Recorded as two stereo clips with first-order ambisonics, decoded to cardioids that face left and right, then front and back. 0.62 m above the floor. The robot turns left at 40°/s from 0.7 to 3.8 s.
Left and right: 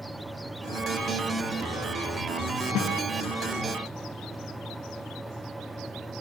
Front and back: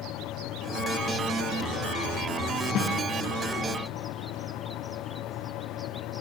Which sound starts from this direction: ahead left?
A snare drum, at 2.8 s.